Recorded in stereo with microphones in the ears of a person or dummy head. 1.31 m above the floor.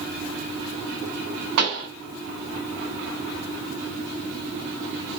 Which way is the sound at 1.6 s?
65° right (ahead or behind).